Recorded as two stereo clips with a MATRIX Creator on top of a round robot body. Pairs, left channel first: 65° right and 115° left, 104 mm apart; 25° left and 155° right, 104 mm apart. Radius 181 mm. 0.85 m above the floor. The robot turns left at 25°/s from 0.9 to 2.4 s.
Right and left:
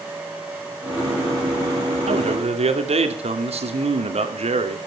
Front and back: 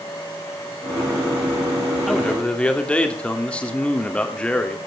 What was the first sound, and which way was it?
A man speaking, 110° left.